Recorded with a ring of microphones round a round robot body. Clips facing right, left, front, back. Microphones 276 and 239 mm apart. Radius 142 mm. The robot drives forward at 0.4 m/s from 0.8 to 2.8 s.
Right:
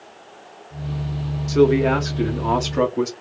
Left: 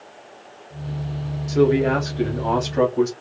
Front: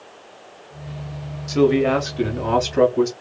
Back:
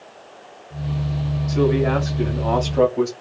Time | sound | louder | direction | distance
1.5 | a man speaking | right 1 dB, front 3 dB | 20° right | 1.4 m